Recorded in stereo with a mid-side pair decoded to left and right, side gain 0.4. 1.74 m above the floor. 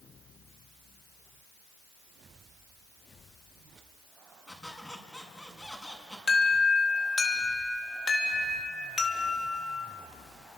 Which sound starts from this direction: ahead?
A squeak, at 4.5 s.